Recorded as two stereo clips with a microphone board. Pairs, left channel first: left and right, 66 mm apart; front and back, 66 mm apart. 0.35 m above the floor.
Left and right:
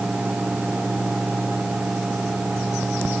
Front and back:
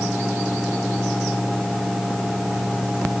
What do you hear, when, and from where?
Only background noise.